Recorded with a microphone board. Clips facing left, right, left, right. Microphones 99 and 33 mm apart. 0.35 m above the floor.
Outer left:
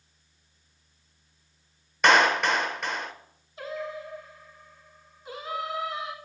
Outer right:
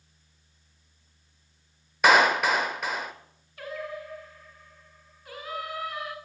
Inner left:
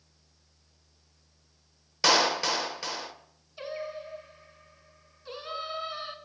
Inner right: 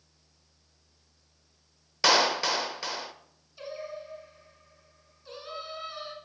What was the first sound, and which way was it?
A clap, 5° right (ahead or behind).